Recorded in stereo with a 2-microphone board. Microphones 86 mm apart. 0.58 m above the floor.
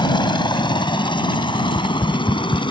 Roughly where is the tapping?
Centre.